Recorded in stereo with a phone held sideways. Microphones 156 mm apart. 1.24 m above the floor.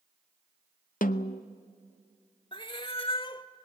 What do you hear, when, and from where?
1.0 s a snare drum: 60° left (ahead or behind), 0.7 m
2.5 s a cat meowing: 35° left (ahead or behind), 1.1 m